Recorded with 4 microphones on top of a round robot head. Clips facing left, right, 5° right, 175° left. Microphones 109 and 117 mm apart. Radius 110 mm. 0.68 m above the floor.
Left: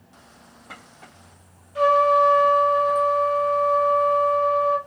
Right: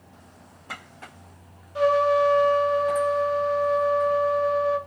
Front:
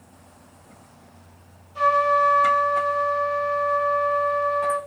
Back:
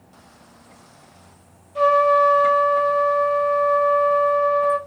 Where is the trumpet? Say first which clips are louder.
Left 2 dB, back 4 dB; 150° right, 1.4 m.